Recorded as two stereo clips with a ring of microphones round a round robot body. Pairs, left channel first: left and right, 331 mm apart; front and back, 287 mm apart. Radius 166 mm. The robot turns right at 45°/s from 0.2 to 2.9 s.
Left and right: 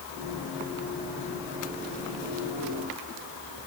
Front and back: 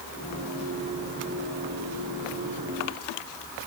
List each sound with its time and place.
Only background noise.